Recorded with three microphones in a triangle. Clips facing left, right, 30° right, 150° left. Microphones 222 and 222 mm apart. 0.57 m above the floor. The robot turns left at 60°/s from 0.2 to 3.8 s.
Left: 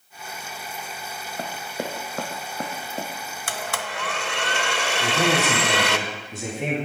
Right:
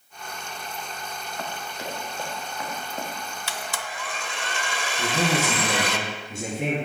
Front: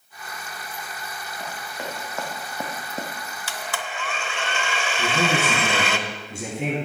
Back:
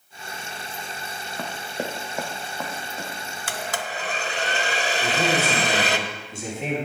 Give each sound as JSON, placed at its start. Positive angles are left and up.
{"t": 1.4, "sound": "running footsteps", "azimuth_deg": 145, "distance_m": 1.4}
{"t": 3.5, "sound": "a blender", "azimuth_deg": 120, "distance_m": 0.6}
{"t": 5.0, "sound": "a man speaking", "azimuth_deg": -50, "distance_m": 5.0}